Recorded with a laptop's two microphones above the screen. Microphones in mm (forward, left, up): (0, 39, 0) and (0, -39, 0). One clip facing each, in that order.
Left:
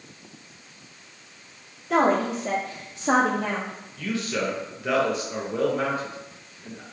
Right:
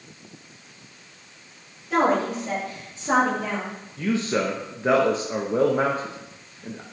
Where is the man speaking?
35° right (ahead or behind), 0.6 m.